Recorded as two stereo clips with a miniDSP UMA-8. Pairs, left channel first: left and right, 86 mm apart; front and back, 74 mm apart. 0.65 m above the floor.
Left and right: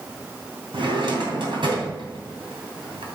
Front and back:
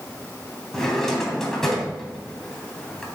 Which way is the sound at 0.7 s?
85° right.